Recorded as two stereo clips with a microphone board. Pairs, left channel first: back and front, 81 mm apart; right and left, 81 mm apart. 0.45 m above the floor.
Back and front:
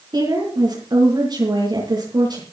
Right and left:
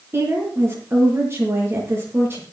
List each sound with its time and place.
0.1 s a woman speaking: 30° left, 8 m